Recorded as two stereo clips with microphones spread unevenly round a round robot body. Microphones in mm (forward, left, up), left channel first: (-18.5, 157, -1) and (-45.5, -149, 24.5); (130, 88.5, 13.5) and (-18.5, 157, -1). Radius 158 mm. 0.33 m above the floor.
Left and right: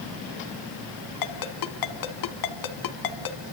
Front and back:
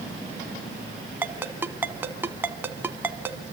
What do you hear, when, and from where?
1.2 s a ringtone: 80° left, 1.9 m